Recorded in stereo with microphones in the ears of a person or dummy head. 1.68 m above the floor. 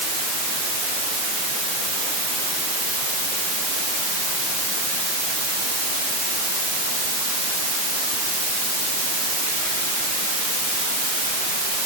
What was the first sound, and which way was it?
Only background noise.